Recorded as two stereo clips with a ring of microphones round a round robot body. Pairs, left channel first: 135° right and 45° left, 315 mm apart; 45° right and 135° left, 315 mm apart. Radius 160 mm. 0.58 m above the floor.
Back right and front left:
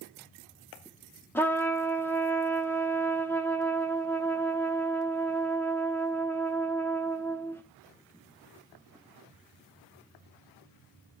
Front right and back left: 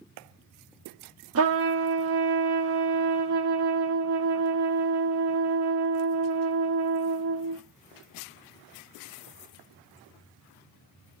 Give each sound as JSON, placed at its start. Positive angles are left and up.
{"t": 1.4, "sound": "a trumpet", "azimuth_deg": 145, "distance_m": 0.9}